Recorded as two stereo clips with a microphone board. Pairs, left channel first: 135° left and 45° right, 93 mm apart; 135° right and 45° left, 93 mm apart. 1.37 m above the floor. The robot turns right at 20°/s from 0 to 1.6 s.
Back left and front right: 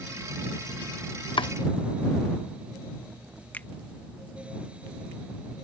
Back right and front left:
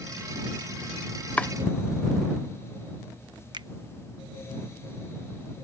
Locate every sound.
1.4 s chopping: 150° left; by 1.5 s 155° left
3.5 s a finger snap: 65° left